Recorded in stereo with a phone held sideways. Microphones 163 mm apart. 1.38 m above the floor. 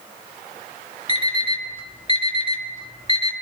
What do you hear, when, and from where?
1.1 s an alarm clock: 35° left (ahead or behind), 1.7 m